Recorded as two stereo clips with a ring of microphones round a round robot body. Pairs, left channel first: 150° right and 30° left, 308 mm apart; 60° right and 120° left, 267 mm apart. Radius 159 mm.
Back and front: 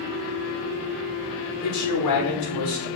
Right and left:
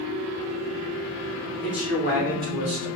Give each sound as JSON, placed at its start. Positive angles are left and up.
{"t": 1.6, "sound": "a man speaking", "azimuth_deg": -140, "distance_m": 0.8}